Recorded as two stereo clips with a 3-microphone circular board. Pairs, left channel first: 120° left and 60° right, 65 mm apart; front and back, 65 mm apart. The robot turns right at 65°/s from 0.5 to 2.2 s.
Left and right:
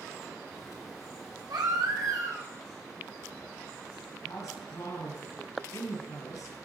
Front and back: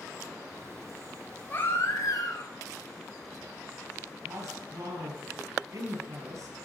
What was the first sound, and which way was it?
A baby crying, 65° right.